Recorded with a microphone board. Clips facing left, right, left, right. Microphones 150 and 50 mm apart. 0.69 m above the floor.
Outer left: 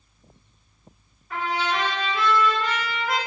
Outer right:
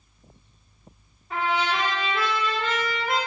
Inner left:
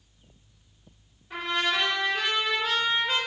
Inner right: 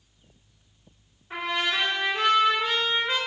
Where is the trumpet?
25° right (ahead or behind), 2 m.